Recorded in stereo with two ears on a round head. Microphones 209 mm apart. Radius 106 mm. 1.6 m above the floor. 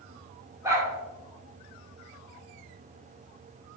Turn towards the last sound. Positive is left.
turn(degrees=-10)  # may be behind; listen again after turning